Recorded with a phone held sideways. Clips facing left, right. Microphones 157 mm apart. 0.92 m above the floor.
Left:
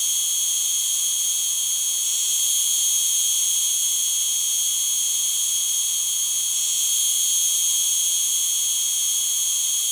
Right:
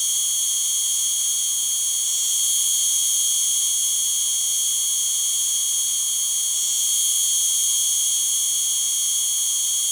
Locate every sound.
0.0 s an insect: 45° right (ahead or behind)